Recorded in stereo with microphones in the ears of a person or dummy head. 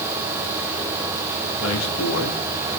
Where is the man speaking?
80° left, 4 m.